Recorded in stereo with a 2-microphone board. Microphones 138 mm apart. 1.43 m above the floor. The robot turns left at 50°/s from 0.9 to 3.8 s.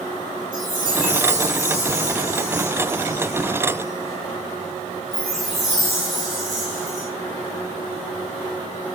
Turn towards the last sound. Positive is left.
turn(degrees=180)